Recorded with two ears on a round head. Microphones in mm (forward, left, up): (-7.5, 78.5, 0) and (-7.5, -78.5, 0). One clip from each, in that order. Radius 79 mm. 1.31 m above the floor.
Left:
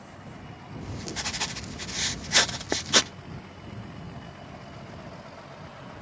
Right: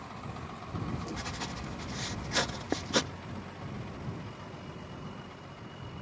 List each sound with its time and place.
0.8 s writing: 65° left (ahead or behind)